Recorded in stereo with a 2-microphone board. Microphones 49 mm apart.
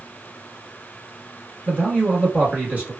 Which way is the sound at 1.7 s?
30° right (ahead or behind).